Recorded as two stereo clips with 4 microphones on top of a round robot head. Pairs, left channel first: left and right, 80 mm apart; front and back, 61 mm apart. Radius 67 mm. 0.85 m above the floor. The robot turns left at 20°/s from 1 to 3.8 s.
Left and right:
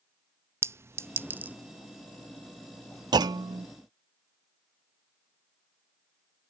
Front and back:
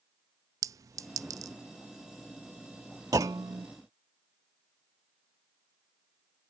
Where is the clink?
150° right; by 1.6 s 160° right.